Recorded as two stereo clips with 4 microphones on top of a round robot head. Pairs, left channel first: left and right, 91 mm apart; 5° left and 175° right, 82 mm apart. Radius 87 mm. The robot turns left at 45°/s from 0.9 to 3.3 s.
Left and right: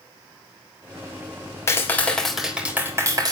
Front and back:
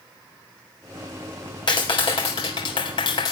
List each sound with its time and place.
1.7 s a clap: 30° left, 4 m; by 3.3 s 45° right, 4 m